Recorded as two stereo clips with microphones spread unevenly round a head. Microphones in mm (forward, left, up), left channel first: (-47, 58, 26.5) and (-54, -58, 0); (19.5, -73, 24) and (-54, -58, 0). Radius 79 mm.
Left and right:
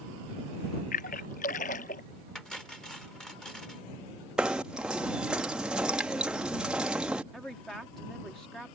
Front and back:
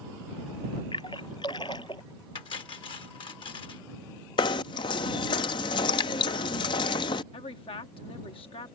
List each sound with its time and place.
0.9 s a splash: 45° left
2.4 s cutlery clinking: straight ahead
4.4 s knocking: 5° right
7.3 s a woman speaking: 5° right